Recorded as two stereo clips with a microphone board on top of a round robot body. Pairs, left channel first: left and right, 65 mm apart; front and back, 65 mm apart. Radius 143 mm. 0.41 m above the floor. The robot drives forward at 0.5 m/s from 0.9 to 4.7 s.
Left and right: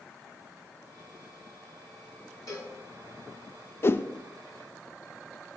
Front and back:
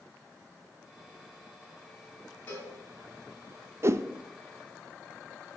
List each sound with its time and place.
2.5 s a cowbell: 60° left, 6 m
3.8 s a whoosh: 140° left, 0.6 m; by 4.0 s 145° left, 0.7 m